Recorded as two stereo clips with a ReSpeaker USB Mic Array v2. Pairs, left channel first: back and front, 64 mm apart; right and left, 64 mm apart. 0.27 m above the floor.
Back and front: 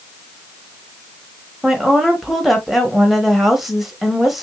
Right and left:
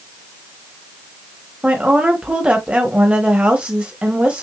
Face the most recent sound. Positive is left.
turn(degrees=80)